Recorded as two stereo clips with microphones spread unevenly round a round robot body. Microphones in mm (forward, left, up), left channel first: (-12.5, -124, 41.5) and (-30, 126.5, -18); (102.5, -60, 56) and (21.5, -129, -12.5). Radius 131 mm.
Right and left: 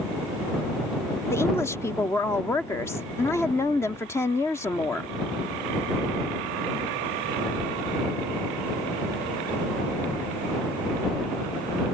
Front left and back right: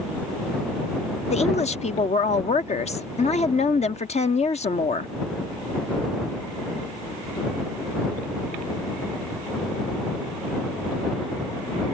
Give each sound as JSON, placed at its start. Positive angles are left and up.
{"t": 1.3, "sound": "a woman speaking", "azimuth_deg": 0}